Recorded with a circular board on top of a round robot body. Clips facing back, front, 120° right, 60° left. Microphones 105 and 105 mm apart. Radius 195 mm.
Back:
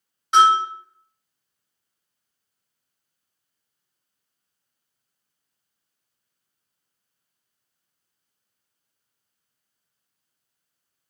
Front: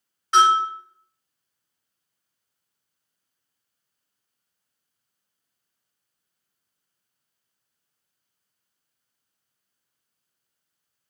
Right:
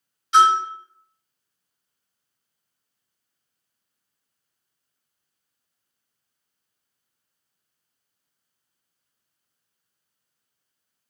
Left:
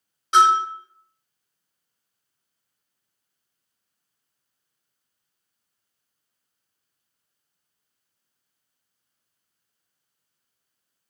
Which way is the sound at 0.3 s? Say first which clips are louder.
Back 2 dB, even; 105° left.